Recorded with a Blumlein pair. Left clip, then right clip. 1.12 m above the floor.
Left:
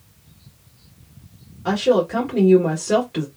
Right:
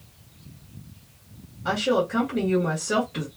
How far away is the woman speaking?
About 1.3 m.